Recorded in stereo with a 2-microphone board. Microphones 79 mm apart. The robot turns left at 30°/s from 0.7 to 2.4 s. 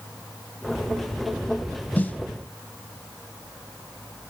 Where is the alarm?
I don't hear an alarm.